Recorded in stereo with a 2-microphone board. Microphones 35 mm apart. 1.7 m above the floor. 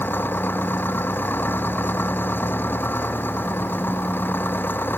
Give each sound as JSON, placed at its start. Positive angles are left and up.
{"t": 0.0, "sound": "an engine running", "side_deg": 85}